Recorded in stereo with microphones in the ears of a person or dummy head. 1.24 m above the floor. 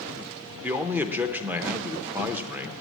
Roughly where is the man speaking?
Centre.